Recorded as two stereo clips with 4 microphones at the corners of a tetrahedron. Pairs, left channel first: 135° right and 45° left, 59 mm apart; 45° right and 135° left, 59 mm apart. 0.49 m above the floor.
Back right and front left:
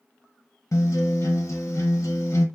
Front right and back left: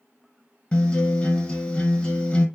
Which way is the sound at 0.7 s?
115° right.